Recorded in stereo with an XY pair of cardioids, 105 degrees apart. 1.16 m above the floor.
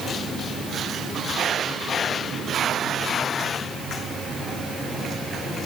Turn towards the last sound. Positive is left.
No sound to turn to.